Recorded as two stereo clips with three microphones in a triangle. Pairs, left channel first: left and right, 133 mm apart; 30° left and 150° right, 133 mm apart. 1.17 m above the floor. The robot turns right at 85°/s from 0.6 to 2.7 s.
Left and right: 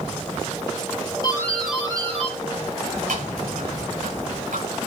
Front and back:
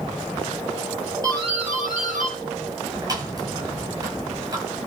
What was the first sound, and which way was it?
A doorbell, 145° left.